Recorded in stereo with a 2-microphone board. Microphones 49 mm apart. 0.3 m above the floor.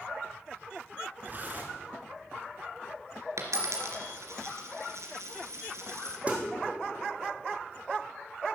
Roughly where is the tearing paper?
Right.